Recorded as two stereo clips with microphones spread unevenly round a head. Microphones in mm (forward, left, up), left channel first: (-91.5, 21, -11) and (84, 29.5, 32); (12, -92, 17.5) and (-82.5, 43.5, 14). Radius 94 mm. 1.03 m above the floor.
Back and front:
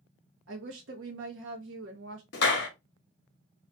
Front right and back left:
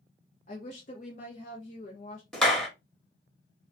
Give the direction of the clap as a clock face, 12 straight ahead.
5 o'clock.